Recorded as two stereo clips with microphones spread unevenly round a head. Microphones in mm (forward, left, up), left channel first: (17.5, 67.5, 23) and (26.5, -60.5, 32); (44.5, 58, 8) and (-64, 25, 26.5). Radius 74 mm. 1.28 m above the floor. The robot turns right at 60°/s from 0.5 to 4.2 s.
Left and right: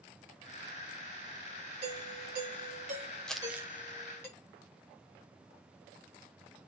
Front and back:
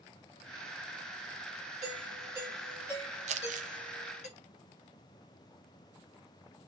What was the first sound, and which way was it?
A doorbell, 120° right.